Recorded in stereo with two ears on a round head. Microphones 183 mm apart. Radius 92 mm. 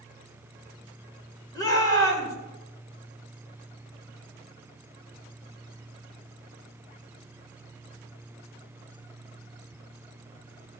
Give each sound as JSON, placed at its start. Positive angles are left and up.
{"t": 1.6, "sound": "a shout", "side_deg": 15, "distance_m": 2.5}